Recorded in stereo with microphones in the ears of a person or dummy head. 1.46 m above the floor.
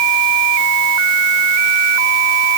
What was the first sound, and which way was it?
Only background noise.